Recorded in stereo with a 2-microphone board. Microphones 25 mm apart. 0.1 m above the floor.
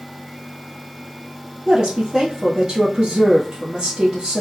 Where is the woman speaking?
30° right (ahead or behind), 2.5 m.